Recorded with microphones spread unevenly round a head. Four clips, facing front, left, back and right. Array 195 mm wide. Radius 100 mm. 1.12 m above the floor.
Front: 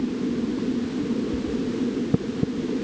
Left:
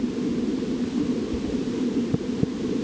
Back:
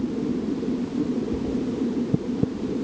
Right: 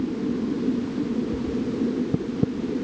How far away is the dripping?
No dripping in this recording.